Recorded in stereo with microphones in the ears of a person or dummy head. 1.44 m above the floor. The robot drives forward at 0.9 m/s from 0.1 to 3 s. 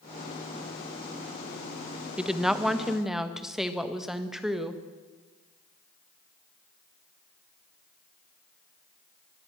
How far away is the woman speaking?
About 0.8 m.